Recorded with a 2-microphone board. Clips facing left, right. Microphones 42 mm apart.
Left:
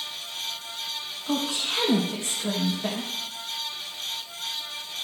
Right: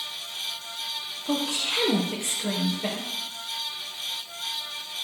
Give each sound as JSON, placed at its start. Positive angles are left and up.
{"t": 1.2, "sound": "a woman speaking", "side_deg": -65, "distance_m": 3.0}